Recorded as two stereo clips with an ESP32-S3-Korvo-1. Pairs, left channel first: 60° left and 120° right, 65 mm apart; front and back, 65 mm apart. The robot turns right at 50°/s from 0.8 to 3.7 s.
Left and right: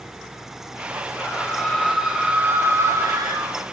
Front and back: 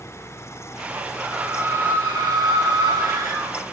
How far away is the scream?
About 4 m.